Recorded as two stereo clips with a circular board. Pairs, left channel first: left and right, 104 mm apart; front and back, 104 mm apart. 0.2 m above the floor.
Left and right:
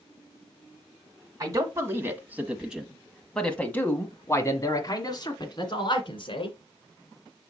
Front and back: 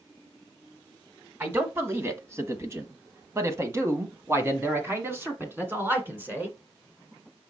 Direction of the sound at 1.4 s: 125° right.